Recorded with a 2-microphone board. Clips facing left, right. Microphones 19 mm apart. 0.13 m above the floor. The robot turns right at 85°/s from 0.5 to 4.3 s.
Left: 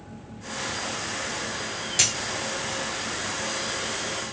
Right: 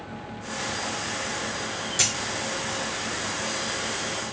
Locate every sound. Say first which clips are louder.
2.0 s a dropped coin: left 1 dB; 25° left (ahead or behind), 1.3 m; by 2.1 s 35° left (ahead or behind), 1.3 m